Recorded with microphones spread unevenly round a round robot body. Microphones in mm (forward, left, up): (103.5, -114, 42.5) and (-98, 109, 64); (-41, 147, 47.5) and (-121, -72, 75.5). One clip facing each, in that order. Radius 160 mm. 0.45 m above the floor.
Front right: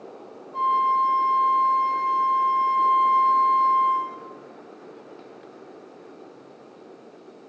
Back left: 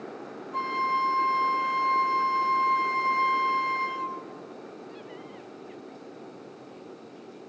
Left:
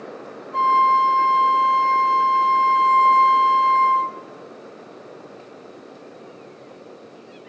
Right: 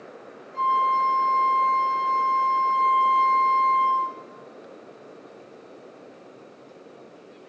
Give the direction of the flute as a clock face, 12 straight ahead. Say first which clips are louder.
Front right 6 dB, left 5 dB; 10 o'clock.